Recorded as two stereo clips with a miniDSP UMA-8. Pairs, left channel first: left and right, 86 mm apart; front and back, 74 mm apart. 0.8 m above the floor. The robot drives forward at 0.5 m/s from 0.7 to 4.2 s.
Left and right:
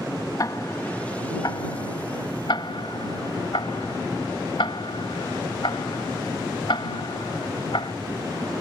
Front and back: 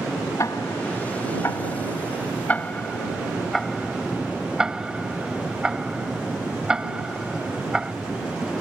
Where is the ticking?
45° left; by 7.9 s 100° left.